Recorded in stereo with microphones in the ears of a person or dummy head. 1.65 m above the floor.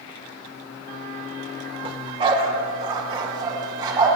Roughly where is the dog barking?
Right.